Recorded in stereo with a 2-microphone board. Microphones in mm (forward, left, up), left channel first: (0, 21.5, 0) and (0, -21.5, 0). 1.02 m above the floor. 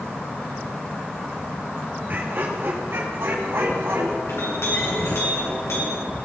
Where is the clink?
75° left (ahead or behind), 8 m.